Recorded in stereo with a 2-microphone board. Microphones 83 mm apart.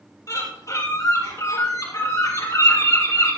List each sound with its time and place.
0.3 s a bird: 45° left (ahead or behind), 5 m